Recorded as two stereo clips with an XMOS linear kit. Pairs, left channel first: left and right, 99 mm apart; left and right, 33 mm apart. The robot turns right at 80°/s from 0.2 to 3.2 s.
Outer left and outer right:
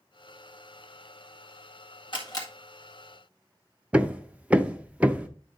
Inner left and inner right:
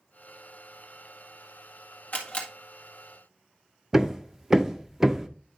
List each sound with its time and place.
2.1 s a camera shutter: 55° left (ahead or behind), 1.7 m; by 2.5 s 30° left (ahead or behind), 1.7 m
3.9 s hammering: 15° right (ahead or behind), 0.6 m